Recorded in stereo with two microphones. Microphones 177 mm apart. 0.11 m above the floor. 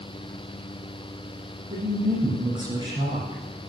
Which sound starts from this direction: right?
A woman speaking, at 1.7 s.